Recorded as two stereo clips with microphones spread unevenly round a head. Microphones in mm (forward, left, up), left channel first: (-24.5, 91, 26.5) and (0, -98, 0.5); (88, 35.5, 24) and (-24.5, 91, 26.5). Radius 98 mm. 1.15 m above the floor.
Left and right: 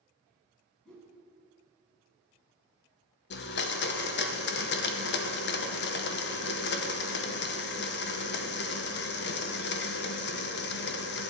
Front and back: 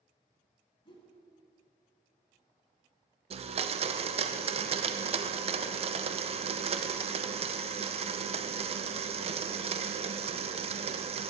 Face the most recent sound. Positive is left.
turn(degrees=125)